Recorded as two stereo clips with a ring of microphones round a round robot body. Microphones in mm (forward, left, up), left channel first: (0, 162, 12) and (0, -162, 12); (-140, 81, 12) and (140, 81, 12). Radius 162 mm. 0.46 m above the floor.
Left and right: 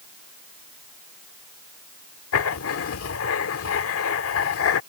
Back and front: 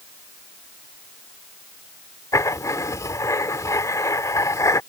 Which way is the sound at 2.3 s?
105° left.